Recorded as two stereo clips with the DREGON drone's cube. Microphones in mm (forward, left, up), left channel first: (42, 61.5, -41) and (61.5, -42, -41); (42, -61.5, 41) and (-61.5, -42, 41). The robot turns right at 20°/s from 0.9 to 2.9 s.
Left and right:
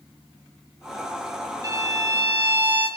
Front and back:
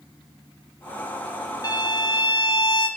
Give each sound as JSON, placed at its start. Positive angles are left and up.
{"t": 1.6, "sound": "a violin", "azimuth_deg": -40, "distance_m": 1.4}